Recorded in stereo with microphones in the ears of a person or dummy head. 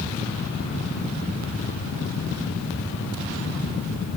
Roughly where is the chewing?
No chewing in this recording.